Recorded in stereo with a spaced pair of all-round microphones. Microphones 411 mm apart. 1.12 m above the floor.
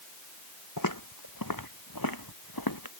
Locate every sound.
0.8 s footsteps: 50° left (ahead or behind); by 3.0 s 55° left (ahead or behind)